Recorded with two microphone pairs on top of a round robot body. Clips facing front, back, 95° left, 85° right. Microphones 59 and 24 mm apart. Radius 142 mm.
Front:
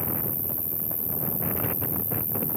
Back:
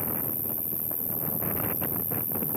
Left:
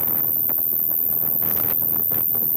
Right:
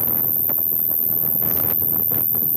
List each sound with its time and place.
0.0 s an insect: 80° right